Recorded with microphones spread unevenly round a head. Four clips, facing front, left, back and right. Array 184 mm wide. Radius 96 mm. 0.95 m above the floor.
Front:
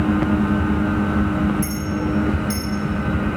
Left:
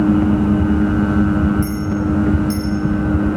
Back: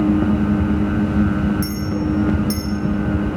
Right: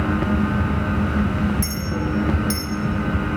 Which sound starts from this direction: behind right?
A clink, at 1.6 s.